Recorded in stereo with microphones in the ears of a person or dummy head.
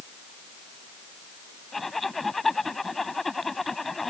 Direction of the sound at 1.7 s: Centre (ahead or behind).